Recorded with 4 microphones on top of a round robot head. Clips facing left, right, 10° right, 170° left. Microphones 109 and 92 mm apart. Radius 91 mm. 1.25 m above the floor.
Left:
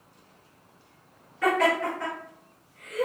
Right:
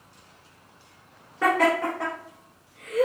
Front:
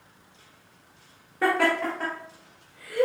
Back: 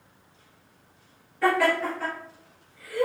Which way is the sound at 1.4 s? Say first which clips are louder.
Right 2 dB, back 1 dB; 55° right.